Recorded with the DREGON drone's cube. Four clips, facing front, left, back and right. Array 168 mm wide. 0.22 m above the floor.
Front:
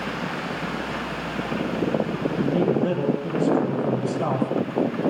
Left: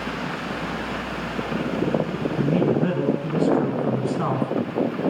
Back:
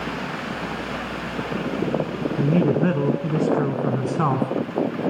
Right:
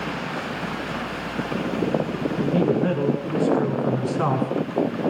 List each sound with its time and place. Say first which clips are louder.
2.4 s a man speaking: even, back 2 dB; 170° left, 3 m; by 5.1 s 150° right, 2.5 m